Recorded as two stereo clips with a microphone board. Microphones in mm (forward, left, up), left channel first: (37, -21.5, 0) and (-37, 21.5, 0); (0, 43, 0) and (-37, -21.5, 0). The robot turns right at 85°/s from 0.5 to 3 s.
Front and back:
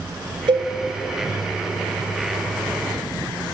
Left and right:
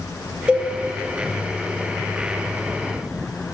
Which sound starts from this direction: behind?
A cowbell, at 0.5 s.